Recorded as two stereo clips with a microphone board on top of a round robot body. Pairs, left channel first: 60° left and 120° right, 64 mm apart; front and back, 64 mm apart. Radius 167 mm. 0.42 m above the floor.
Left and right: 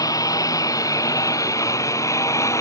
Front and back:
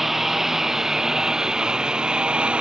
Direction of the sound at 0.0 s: 95° left.